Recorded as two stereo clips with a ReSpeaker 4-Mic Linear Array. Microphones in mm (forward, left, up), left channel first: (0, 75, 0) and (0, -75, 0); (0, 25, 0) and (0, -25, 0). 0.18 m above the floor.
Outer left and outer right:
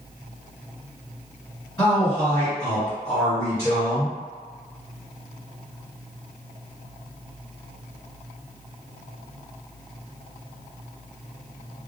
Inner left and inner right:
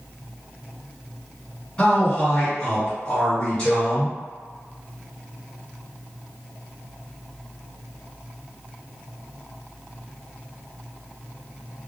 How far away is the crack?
I don't hear a crack.